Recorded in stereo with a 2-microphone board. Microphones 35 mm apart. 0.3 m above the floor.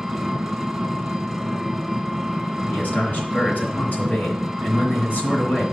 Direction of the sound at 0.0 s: 10° right (ahead or behind).